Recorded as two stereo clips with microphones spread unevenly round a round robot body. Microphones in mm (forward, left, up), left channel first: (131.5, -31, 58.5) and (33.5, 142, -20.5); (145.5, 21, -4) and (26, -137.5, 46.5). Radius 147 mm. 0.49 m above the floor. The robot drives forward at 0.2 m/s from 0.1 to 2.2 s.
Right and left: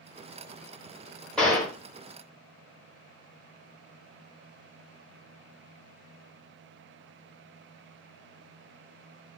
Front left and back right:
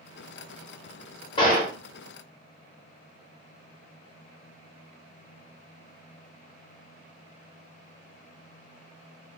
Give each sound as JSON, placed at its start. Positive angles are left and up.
{"t": 1.4, "sound": "a gunshot", "azimuth_deg": 55, "distance_m": 0.9}